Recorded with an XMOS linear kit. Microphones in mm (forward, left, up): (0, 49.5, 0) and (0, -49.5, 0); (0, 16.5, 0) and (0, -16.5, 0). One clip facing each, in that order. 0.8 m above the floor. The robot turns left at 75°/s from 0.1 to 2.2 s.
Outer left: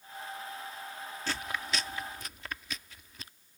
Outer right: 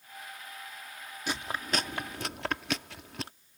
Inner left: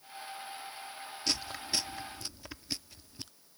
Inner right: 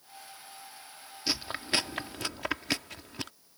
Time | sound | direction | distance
1.3 | chewing | 15° right (ahead or behind) | ?